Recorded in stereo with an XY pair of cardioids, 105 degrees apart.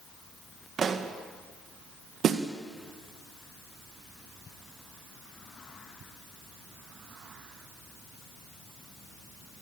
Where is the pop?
50° right, 2 m.